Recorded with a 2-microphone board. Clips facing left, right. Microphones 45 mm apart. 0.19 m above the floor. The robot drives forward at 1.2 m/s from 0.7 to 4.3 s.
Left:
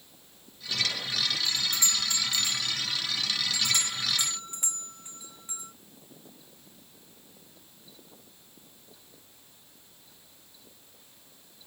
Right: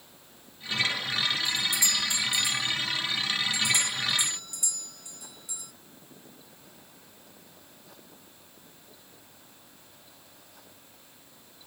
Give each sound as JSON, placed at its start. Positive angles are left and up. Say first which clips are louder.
{"t": 1.4, "sound": "a doorbell", "louder": "right 2 dB", "side_deg": 40}